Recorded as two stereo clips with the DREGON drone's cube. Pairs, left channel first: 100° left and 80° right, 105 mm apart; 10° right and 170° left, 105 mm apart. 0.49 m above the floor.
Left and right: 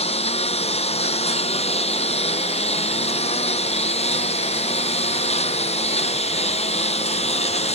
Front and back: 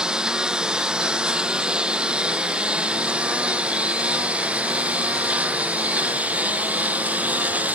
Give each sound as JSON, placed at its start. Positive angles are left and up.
{"t": 0.0, "sound": "a lawn mower", "azimuth_deg": 85}